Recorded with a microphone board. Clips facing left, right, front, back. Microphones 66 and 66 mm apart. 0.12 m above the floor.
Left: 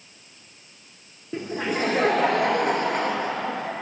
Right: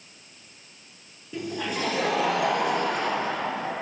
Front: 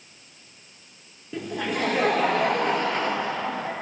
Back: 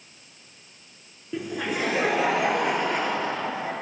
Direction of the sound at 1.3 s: 100° left.